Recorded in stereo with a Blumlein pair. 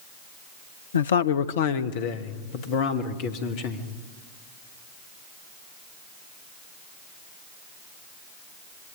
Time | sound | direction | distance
0.9 | a man speaking | 70° left | 0.7 m